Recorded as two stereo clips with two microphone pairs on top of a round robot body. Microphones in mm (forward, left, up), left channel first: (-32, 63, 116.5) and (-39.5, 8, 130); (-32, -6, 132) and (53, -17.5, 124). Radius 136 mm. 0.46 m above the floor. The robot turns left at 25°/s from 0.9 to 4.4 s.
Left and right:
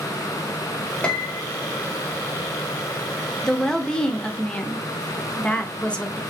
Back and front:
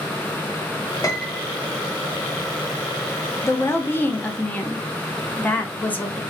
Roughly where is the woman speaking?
Behind left.